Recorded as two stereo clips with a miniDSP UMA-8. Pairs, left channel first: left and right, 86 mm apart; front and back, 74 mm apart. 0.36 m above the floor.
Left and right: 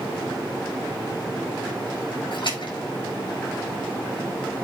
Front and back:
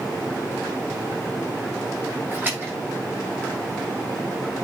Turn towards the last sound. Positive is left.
turn(degrees=115)